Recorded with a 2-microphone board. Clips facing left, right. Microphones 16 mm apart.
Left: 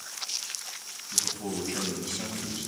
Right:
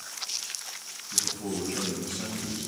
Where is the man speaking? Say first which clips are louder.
Even; 25° left (ahead or behind), 7.5 m.